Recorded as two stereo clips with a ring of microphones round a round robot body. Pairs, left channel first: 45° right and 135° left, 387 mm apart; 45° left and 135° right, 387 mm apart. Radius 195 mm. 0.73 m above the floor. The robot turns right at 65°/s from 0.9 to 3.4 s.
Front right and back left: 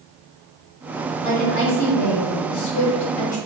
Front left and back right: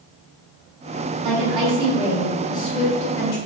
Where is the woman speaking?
120° right, 1.3 m; by 3.4 s 20° left, 1.3 m.